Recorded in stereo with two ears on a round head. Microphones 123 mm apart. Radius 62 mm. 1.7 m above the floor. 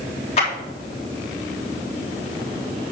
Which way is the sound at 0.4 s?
45° left (ahead or behind).